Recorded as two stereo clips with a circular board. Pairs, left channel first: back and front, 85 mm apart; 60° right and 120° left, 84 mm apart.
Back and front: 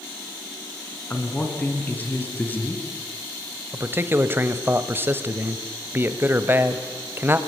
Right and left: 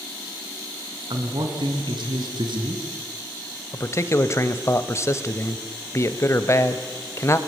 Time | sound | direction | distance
1.1 | a man speaking | 110° left | 4 m
3.7 | a man speaking | 40° right | 1.4 m